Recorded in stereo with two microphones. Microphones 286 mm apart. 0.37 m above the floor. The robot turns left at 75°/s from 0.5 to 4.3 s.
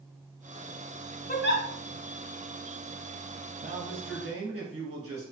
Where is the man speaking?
30° right, 2 m; by 5.3 s 80° right, 2 m.